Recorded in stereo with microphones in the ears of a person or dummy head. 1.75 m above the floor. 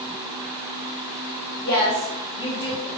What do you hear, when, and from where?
1.6 s a woman speaking: 20° left (ahead or behind), 1.8 m